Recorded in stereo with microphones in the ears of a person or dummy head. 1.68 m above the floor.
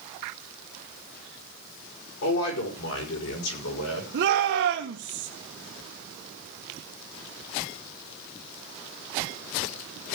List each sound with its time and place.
2.2 s a man speaking: 75° left (ahead or behind), 4 m; by 4.0 s 85° left, 6 m
4.1 s a shout: 60° right (ahead or behind), 1.4 m